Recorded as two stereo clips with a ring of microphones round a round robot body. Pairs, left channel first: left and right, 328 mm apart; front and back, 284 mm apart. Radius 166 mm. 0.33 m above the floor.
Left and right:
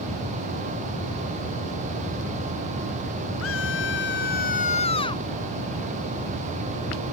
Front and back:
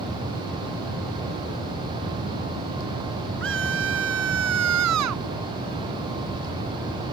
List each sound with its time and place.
3.4 s a scream: 140° left; by 5.2 s 170° left